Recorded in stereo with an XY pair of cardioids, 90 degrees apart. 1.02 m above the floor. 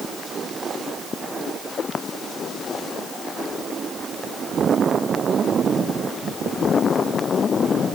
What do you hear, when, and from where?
Only background noise.